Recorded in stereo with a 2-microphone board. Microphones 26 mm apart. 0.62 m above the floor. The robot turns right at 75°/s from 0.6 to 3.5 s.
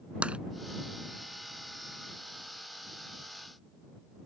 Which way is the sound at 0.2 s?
50° right (ahead or behind).